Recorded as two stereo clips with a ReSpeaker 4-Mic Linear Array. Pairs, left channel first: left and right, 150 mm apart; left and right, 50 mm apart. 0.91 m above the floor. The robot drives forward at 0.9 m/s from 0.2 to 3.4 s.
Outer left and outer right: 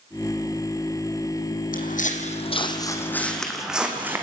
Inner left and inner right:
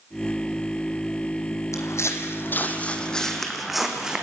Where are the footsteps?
65° left (ahead or behind), 2 m; by 4.2 s 15° right (ahead or behind), 3 m.